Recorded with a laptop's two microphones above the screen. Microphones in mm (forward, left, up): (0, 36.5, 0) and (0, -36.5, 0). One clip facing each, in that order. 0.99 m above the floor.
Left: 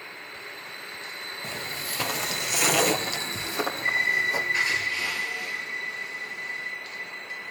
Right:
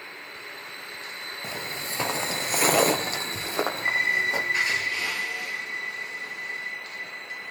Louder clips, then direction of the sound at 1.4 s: Right 1 dB; 10° right (ahead or behind).